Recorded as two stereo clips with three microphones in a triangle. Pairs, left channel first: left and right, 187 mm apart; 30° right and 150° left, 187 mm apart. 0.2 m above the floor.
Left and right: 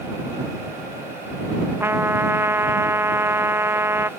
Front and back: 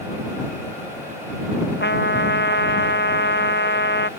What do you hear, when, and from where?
1.8 s a trumpet: 10° right